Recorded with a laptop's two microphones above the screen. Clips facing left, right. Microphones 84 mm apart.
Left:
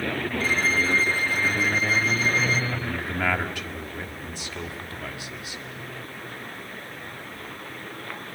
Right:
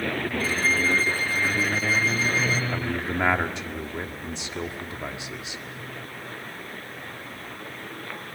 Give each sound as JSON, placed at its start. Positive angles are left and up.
{"t": 0.4, "sound": "a violin", "side_deg": 65, "distance_m": 1.7}
{"t": 2.7, "sound": "a man speaking", "side_deg": -25, "distance_m": 1.6}